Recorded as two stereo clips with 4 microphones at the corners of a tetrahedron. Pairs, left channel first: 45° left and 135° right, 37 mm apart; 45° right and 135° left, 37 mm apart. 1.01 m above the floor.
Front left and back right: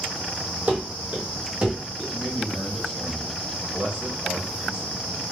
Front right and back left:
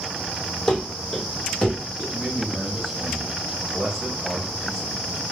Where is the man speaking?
150° right, 1.7 m.